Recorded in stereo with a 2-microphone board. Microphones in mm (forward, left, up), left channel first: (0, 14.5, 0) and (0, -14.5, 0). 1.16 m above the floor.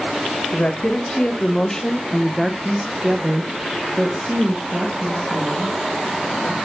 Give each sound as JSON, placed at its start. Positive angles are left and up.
{"t": 0.5, "sound": "a woman speaking", "side_deg": 45, "distance_m": 1.4}